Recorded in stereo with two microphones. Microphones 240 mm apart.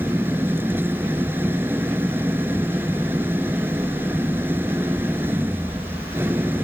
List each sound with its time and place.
0.0 s an engine running: 10° right (ahead or behind)